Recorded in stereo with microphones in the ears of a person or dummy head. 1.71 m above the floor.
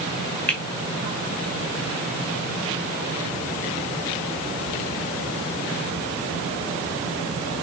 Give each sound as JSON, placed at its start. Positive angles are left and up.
{"t": 0.5, "sound": "a finger snap", "side_deg": 5, "distance_m": 3.5}